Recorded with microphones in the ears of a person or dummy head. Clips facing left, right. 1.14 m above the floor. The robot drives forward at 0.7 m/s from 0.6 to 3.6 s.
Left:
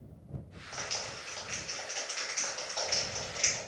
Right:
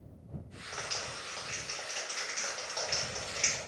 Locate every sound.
0.7 s a clap: 20° right (ahead or behind), 0.9 m; by 3.6 s 5° right (ahead or behind), 3 m